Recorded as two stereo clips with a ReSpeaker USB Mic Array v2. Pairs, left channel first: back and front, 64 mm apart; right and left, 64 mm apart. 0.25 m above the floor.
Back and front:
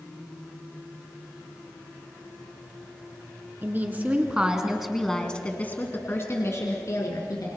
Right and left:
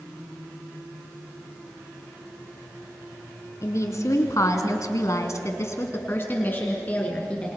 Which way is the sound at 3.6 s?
55° right.